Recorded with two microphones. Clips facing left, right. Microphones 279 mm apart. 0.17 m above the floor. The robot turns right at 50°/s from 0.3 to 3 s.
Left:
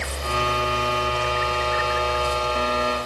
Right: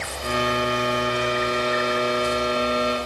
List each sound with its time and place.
Only background noise.